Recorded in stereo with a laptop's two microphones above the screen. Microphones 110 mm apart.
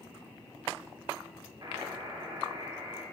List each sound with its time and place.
1.6 s a buzzer: 40° right (ahead or behind), 2.5 m